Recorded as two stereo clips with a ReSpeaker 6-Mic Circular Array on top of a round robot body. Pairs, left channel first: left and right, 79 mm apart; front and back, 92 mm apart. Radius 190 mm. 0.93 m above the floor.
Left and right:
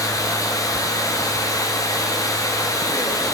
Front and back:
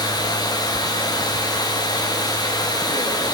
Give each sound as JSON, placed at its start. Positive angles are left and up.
{"t": 0.0, "sound": "running water", "azimuth_deg": 45, "distance_m": 1.7}